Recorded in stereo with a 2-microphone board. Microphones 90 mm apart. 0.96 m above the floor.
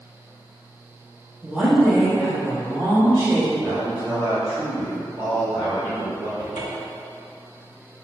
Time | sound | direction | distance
1.4 | a woman speaking | 10° right (ahead or behind) | 1.4 m
3.6 | a man speaking | 20° right (ahead or behind) | 1.6 m
6.4 | a cupboard door | 45° right (ahead or behind) | 1.2 m